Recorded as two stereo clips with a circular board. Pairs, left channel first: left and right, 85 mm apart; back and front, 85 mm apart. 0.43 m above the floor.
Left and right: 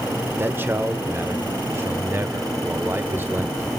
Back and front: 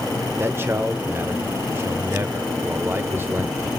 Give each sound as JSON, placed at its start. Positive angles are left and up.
{"t": 0.4, "sound": "a man speaking", "azimuth_deg": -45, "distance_m": 1.5}